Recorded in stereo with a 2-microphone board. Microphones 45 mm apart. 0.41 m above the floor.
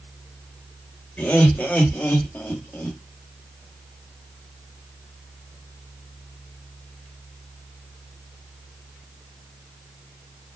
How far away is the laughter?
About 1.7 m.